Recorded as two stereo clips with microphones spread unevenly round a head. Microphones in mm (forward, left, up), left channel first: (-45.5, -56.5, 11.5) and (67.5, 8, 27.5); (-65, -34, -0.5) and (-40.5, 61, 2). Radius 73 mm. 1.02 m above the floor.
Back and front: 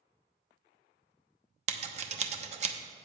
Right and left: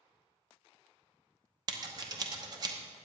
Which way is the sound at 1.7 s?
40° left.